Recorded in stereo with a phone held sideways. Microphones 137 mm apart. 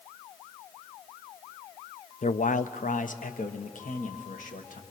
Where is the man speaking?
65° left (ahead or behind), 0.6 m; by 4.8 s 70° left (ahead or behind), 2 m.